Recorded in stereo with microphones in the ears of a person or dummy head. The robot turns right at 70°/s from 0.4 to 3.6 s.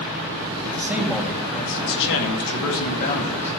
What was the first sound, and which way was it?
A man speaking, 30° right.